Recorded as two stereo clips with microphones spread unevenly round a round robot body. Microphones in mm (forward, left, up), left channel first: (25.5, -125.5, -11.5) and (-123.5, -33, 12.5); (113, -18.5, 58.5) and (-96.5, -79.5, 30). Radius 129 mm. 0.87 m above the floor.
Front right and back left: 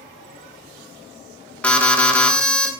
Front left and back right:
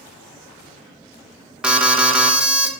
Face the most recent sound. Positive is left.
turn(degrees=-95)